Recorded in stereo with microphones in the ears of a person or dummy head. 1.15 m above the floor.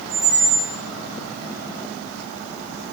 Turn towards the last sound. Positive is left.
turn(degrees=-40)  # may be behind; listen again after turning